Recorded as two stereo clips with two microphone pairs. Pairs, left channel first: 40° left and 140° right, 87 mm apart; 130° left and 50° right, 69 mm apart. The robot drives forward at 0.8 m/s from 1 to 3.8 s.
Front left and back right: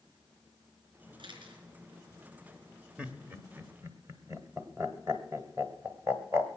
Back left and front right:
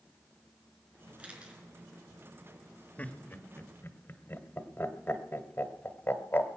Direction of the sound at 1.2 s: 120° right.